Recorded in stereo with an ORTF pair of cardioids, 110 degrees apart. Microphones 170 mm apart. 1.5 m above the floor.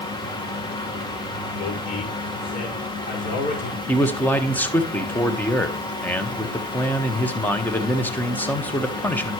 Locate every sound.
0.0 s a fan: 25° left, 1.7 m
1.5 s a man speaking: 55° left, 5 m
3.9 s a man speaking: 10° left, 1.2 m